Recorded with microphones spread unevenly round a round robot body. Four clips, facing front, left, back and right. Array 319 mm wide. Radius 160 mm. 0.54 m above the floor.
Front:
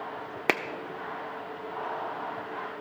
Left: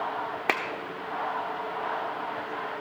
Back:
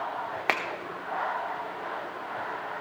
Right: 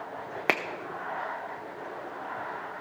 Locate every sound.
0.5 s a finger snap: 5° right, 0.8 m